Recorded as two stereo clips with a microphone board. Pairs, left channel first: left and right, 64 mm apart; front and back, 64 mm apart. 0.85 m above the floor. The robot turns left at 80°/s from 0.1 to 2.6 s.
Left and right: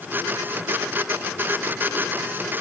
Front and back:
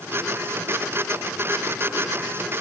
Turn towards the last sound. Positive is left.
No sound to turn to.